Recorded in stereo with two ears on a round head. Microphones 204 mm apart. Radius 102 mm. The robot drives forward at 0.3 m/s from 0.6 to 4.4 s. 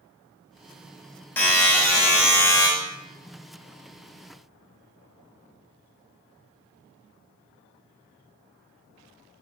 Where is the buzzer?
10° left (ahead or behind), 1.1 m; by 2.7 s 15° left (ahead or behind), 0.8 m.